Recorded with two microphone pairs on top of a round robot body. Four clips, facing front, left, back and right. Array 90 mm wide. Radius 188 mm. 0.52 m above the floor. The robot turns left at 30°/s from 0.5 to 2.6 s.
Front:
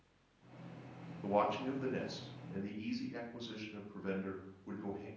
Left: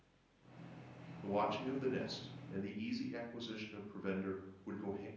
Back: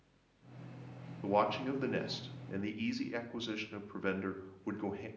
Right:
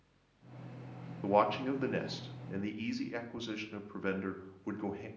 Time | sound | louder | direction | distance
1.2 | a man speaking | right 8 dB, back 2 dB | 95° right | 1.0 m